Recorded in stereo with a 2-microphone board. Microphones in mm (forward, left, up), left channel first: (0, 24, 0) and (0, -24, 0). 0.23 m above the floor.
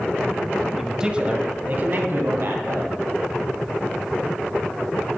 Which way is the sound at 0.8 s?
5° right (ahead or behind).